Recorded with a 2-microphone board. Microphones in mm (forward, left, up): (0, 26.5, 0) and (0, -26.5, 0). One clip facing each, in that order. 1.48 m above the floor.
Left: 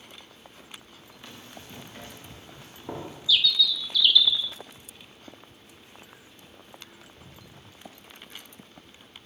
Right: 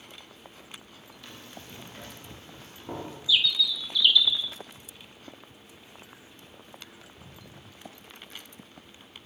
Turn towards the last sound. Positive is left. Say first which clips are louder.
# left 1 dB
turn(degrees=-20)  # may be behind; listen again after turning